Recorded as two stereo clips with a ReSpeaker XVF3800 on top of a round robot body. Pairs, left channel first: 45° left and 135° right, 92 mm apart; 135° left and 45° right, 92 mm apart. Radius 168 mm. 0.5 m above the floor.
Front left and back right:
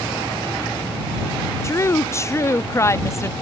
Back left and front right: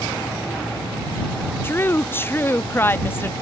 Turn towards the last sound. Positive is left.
turn(degrees=85)